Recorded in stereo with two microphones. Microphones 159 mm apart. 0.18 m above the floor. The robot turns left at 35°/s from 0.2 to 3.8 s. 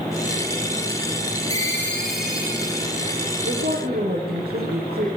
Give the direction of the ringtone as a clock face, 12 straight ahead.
11 o'clock.